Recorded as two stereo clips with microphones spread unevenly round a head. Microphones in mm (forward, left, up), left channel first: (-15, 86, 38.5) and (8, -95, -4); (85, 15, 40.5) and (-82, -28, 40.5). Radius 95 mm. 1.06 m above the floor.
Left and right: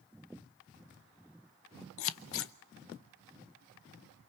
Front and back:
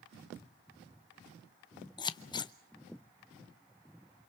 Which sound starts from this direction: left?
Scissors, at 2.0 s.